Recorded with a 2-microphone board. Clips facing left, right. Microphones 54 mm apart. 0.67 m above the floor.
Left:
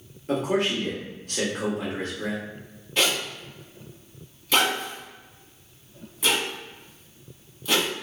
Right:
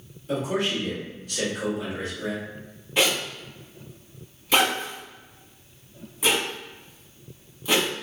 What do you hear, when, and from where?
0.3 s a man speaking: 50° left (ahead or behind), 1.6 m
3.0 s a zipper: 10° right (ahead or behind), 1.5 m